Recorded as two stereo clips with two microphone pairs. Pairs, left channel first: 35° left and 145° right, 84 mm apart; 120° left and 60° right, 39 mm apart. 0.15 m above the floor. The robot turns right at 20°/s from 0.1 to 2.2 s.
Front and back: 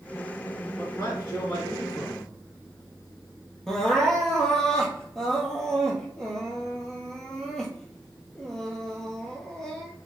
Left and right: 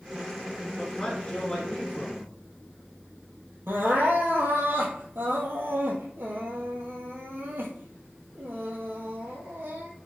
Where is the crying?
50° right, 1.1 m.